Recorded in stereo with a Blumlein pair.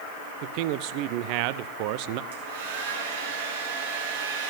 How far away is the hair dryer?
About 3.5 m.